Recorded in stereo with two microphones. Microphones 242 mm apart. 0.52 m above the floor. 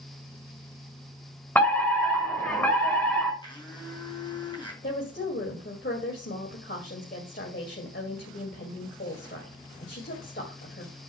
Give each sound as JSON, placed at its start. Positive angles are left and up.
{"t": 1.6, "sound": "a fire alarm", "side_deg": 10, "distance_m": 4.0}
{"t": 3.4, "sound": "a blender", "side_deg": 20, "distance_m": 4.0}
{"t": 4.8, "sound": "a woman speaking", "side_deg": 50, "distance_m": 2.5}